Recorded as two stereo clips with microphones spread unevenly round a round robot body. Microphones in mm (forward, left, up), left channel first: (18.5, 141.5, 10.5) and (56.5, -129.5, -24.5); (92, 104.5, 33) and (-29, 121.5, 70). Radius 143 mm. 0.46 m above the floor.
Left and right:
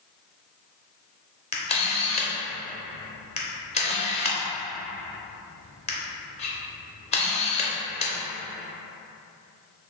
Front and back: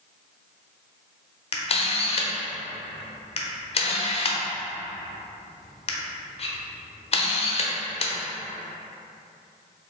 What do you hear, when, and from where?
1.5 s a camera shutter: 30° left, 0.7 m